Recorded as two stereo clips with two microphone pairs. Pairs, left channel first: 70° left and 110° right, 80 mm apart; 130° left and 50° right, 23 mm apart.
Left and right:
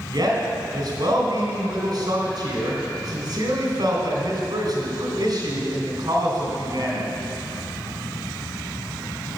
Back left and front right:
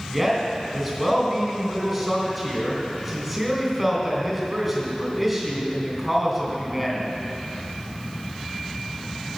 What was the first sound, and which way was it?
A man speaking, 135° right.